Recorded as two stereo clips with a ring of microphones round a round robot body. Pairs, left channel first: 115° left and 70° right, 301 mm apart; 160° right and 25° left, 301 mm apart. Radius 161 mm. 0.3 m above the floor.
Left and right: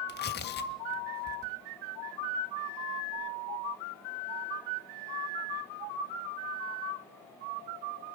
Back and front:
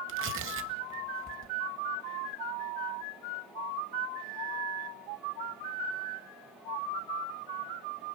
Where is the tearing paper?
60° left, 1.7 m.